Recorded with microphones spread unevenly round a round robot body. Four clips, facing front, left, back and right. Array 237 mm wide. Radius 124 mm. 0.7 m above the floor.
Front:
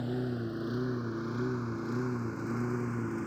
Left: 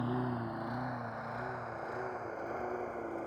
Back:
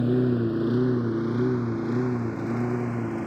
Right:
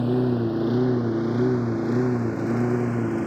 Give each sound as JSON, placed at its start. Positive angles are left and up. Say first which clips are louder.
{"t": 0.0, "sound": "a lawn mower", "louder": "right 13 dB, back 11 dB", "azimuth_deg": -145}